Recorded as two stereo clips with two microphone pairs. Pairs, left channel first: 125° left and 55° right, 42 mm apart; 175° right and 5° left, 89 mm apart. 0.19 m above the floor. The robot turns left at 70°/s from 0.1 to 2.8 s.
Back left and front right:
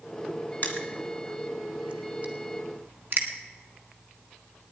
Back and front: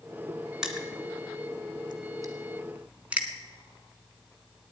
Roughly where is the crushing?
Left.